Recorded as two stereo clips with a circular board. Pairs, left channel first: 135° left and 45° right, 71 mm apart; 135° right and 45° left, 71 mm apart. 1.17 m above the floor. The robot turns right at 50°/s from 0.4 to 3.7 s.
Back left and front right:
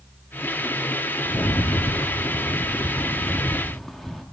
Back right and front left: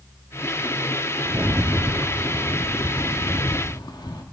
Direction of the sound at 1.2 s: 95° left.